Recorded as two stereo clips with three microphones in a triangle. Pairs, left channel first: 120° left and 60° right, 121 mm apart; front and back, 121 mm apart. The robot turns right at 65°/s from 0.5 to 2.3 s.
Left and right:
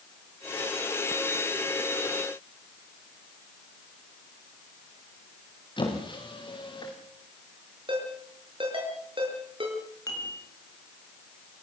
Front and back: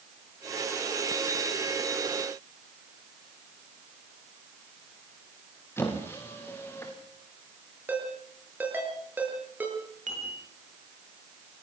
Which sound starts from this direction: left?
A squeak, at 5.8 s.